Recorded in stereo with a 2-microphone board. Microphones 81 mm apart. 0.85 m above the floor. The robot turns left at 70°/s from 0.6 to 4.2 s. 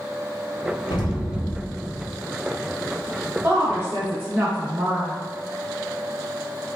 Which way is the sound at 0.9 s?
95° left.